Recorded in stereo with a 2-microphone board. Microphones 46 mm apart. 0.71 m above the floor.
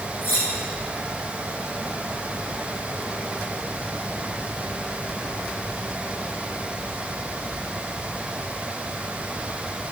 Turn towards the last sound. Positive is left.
turn(degrees=65)  # may be behind; listen again after turning